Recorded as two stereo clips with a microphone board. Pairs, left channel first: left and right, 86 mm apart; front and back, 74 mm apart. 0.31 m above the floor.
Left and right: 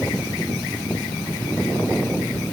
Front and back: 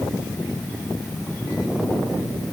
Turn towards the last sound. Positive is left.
No sound to turn to.